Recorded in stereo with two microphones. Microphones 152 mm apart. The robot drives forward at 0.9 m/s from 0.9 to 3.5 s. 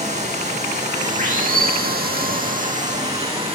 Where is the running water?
50° right (ahead or behind), 1.5 m; by 3.6 s 40° right (ahead or behind), 1.8 m.